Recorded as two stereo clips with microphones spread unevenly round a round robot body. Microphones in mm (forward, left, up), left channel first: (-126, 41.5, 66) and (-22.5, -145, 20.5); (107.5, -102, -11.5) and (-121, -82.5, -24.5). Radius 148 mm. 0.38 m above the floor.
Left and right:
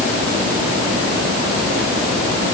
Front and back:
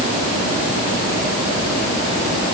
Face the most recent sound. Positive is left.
No sound to turn to.